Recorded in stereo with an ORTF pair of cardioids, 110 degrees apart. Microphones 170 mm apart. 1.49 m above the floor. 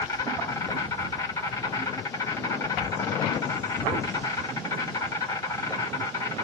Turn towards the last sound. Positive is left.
turn(degrees=20)